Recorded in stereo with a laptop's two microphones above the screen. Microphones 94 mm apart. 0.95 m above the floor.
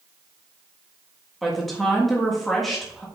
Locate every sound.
1.4 s a woman speaking: centre (ahead or behind), 1.4 m